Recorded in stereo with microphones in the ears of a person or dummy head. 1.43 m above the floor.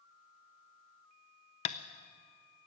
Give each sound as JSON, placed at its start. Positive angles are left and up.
{"t": 1.6, "sound": "tapping", "side_deg": 35, "distance_m": 0.5}